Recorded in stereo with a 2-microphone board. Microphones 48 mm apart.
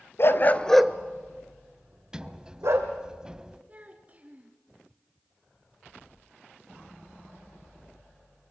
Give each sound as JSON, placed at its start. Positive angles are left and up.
{"t": 0.2, "sound": "a dog barking", "side_deg": 55, "distance_m": 1.2}
{"t": 2.1, "sound": "a sliding door", "side_deg": -15, "distance_m": 0.8}
{"t": 3.7, "sound": "a child speaking", "side_deg": -30, "distance_m": 2.5}